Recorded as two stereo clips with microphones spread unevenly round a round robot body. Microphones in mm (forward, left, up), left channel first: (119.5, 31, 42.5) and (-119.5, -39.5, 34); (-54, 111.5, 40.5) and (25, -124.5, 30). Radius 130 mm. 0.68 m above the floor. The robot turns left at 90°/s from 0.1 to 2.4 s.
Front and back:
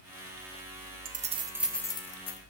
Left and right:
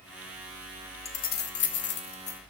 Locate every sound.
1.1 s keys jangling: 165° left, 0.7 m; by 2.4 s 45° left, 0.7 m